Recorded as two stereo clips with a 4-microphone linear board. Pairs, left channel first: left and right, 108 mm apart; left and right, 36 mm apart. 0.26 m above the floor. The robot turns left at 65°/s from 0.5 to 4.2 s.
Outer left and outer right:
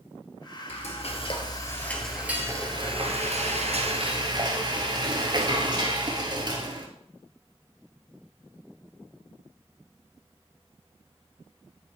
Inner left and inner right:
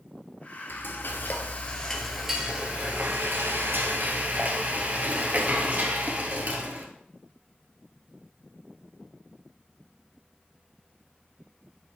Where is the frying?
90° left, 1.8 m; by 6.9 s 135° right, 1.8 m.